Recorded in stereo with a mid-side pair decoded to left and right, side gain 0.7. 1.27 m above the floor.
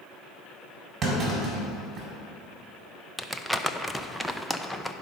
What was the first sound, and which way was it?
A clunk, 35° right.